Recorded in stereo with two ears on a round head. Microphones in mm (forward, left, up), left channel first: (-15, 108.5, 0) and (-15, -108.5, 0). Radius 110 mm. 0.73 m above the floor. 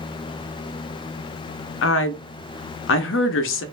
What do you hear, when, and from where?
1.8 s a woman speaking: 50° left (ahead or behind), 0.7 m